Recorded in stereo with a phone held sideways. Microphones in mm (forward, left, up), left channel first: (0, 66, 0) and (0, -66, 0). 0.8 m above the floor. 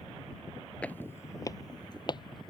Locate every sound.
0.8 s footsteps: 10° left (ahead or behind); by 2.5 s 40° left (ahead or behind)